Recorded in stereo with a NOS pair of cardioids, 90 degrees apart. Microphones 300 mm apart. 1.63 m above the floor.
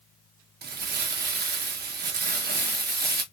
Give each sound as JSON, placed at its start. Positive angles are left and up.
{"t": 0.6, "sound": "crumpling", "azimuth_deg": -30, "distance_m": 1.0}